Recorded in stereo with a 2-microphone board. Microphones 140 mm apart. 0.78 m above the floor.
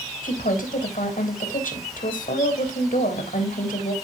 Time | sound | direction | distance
0.2 | a woman speaking | 85° left | 3.5 m